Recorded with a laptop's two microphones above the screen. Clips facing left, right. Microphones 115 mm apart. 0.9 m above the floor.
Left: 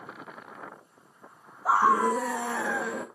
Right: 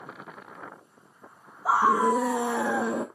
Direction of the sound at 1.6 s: 5° right (ahead or behind).